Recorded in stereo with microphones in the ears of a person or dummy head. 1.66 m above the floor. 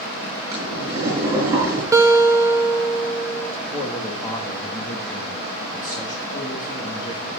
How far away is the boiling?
About 6 m.